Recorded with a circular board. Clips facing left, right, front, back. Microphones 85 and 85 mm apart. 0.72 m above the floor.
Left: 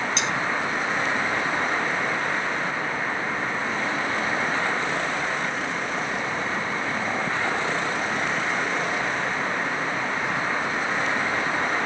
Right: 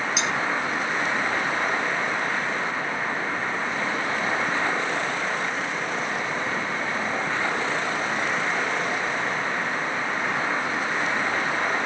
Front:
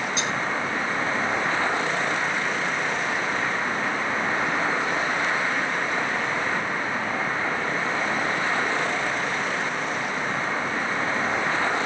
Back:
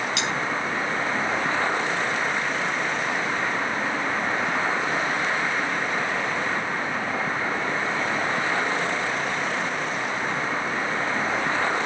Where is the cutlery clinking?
175° right, 3.5 m.